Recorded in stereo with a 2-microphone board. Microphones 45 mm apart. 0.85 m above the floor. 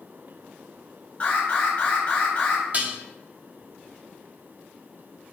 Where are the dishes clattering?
40° right (ahead or behind), 1.0 m.